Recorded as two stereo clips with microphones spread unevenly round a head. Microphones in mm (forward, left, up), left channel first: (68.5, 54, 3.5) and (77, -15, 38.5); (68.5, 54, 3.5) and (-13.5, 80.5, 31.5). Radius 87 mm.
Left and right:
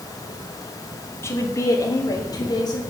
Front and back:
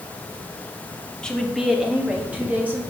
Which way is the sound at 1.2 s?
55° left.